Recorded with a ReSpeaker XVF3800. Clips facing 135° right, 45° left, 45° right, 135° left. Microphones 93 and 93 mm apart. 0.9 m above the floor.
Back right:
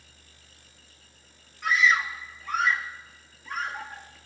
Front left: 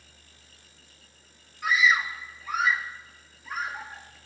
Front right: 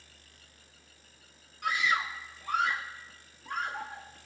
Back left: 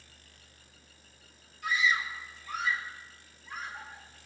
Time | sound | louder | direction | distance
1.6 | a scream | even, even | 40° right | 1.7 m